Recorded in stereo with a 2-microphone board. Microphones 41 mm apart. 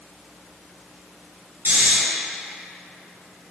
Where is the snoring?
50° right (ahead or behind), 2.0 m.